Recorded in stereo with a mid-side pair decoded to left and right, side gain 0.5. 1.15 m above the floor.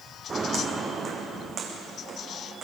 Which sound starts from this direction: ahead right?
Footsteps, at 0.3 s.